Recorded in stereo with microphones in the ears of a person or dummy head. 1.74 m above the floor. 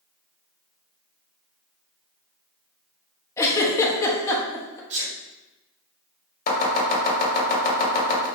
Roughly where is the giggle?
Centre.